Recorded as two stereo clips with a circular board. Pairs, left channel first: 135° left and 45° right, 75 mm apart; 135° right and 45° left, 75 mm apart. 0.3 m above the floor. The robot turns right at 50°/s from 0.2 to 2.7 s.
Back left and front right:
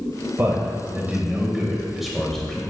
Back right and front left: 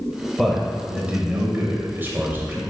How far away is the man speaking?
About 1.1 m.